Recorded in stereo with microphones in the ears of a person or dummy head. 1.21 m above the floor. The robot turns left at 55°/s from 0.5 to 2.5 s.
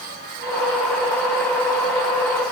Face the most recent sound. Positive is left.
No sound to turn to.